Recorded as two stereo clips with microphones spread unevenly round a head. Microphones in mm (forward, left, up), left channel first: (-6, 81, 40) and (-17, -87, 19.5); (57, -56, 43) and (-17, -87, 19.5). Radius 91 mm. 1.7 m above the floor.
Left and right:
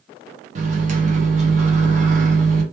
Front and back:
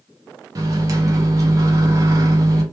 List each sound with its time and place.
0.6 s a microwave: 115° right, 0.6 m